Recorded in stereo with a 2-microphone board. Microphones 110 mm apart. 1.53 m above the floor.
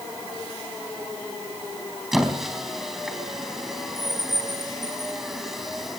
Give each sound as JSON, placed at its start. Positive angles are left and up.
{"t": 2.1, "sound": "a squeak", "side_deg": 0, "distance_m": 3.5}